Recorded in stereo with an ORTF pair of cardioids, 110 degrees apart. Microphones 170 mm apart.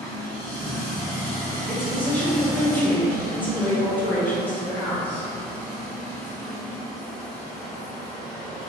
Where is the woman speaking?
10° left, 1.4 m.